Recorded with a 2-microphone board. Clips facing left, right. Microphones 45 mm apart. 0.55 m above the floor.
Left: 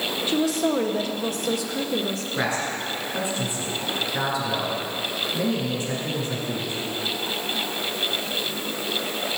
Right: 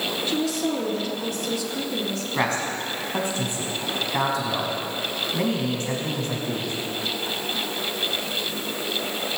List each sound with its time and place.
0.3 s a woman speaking: 25° left (ahead or behind), 1.7 m
2.4 s a man speaking: 55° right (ahead or behind), 4.5 m